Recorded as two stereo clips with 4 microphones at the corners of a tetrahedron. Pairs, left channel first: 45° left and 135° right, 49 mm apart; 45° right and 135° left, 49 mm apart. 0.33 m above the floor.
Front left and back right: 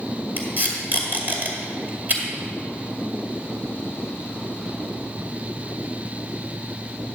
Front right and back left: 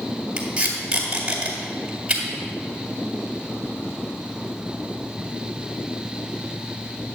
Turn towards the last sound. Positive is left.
turn(degrees=-160)